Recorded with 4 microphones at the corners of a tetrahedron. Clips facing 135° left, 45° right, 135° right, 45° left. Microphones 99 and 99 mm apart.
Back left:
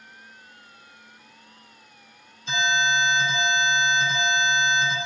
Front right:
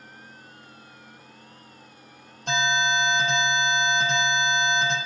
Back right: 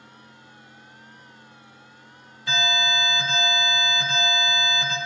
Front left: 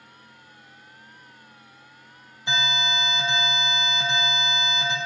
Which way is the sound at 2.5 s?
25° right.